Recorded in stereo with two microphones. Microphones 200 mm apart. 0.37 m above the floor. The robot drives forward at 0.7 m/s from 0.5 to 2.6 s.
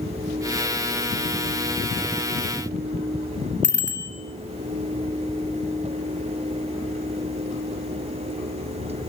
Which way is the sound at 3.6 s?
65° left (ahead or behind).